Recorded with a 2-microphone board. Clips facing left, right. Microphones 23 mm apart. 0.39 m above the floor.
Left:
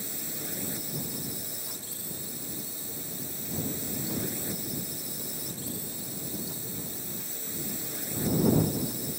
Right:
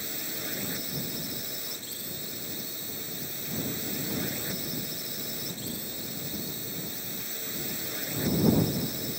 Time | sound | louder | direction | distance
0.0 | a drone | right 2 dB | 20° right (ahead or behind) | ?